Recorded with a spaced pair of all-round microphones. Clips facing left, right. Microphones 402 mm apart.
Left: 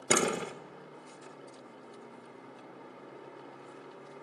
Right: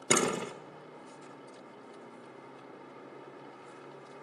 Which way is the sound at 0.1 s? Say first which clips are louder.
Even; 5° right (ahead or behind).